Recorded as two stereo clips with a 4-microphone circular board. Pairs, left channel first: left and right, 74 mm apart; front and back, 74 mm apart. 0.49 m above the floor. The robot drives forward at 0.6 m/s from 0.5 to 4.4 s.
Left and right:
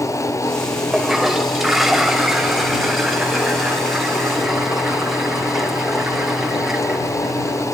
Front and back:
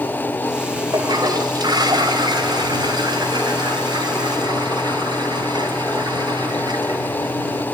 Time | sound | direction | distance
0.9 | a toilet flushing | 175° right | 2 m